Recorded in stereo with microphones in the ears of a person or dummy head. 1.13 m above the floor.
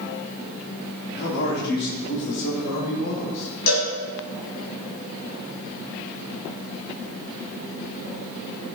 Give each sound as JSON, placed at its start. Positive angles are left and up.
{"t": 1.1, "sound": "a man speaking", "side_deg": 60, "distance_m": 2.5}
{"t": 3.7, "sound": "a cowbell", "side_deg": 80, "distance_m": 5.0}